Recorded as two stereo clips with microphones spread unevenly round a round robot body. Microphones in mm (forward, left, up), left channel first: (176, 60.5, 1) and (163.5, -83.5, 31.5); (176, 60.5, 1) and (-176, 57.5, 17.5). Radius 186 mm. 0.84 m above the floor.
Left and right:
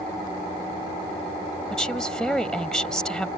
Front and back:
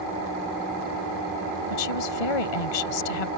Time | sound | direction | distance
1.7 | a woman speaking | straight ahead | ?